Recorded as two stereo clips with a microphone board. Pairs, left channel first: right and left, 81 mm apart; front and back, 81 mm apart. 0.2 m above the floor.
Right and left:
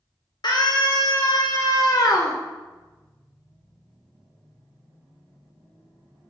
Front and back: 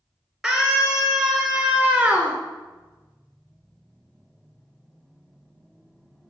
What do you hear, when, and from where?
0.4 s a scream: 95° right, 3 m; by 2.4 s 110° right, 2 m